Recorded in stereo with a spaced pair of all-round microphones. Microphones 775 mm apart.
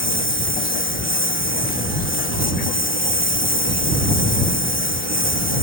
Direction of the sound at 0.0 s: 15° left (ahead or behind).